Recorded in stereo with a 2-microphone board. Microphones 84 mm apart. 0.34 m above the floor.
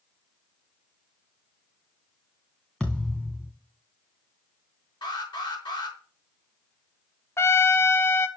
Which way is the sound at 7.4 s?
30° left (ahead or behind).